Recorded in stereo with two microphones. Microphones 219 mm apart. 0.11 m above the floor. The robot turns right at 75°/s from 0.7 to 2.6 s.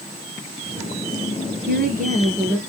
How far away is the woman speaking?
About 2.0 m.